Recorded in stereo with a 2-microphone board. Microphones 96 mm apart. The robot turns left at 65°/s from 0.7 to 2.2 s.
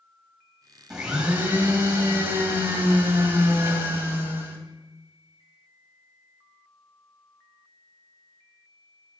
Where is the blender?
5° right (ahead or behind), 1.4 m; by 4.6 s 20° right (ahead or behind), 1.4 m.